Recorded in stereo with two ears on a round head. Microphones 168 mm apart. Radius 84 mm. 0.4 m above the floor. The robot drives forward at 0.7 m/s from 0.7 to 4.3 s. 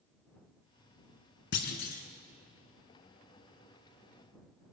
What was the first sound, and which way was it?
A clunk, 60° left (ahead or behind).